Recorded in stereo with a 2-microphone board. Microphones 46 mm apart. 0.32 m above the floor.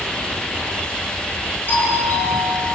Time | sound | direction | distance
1.7 | a doorbell | 45° left (ahead or behind) | 7 m